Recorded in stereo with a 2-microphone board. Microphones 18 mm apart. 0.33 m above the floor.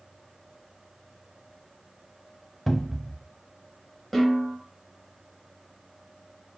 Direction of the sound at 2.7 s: 5° left (ahead or behind).